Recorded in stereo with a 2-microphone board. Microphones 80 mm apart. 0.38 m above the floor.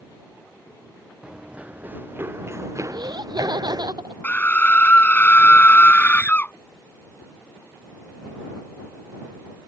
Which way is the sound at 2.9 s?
70° right (ahead or behind).